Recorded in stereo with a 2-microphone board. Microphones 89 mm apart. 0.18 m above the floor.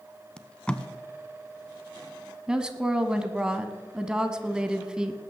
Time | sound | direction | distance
0.4 | tape being pulled | 10° left (ahead or behind) | 0.7 m
2.5 | a woman speaking | 10° right (ahead or behind) | 1.1 m